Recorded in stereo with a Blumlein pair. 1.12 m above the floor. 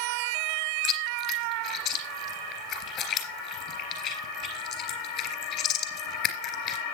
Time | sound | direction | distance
0.8 | chewing | 40° left | 3.5 m